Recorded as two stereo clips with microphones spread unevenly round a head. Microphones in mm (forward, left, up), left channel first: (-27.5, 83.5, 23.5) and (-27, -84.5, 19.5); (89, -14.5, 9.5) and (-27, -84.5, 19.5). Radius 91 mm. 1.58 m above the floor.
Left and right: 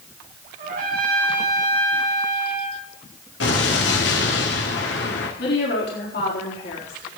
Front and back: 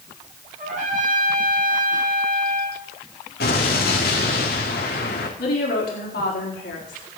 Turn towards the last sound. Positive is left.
turn(degrees=50)